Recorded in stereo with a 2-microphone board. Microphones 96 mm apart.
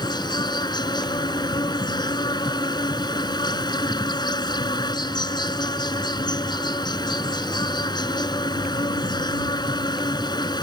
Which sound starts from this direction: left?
An insect, at 0.0 s.